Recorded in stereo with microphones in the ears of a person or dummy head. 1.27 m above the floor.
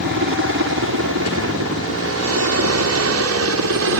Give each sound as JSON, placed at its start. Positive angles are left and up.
{"t": 0.0, "sound": "a helicopter", "side_deg": -60}